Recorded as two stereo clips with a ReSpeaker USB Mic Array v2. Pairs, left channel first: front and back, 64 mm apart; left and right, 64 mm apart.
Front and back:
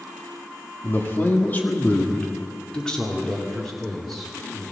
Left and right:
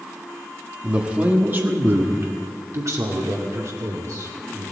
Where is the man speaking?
25° right, 1.5 m; by 4.6 s 90° right, 3 m.